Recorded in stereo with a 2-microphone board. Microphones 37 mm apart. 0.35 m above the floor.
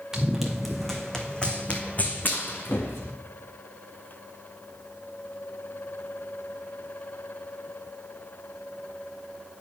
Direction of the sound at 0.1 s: 10° right (ahead or behind).